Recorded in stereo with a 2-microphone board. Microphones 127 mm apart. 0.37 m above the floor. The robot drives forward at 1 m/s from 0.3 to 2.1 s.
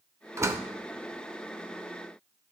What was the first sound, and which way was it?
A door slam, 20° right (ahead or behind).